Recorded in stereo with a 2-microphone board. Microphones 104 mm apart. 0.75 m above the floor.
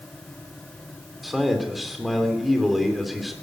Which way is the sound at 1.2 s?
Centre (ahead or behind).